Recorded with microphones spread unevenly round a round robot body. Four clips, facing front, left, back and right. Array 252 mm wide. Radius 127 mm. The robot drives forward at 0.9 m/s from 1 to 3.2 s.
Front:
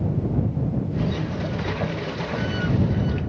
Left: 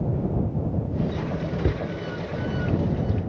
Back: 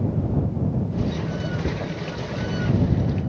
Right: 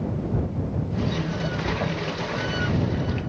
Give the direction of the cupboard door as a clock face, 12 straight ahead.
9 o'clock.